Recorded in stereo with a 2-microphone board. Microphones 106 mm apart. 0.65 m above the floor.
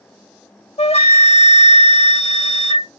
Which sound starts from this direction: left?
A flute, at 0.8 s.